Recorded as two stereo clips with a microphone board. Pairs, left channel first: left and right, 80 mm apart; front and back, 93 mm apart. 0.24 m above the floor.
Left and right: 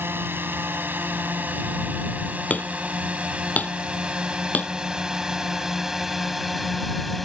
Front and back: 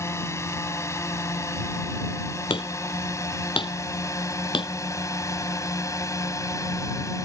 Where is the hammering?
20° left.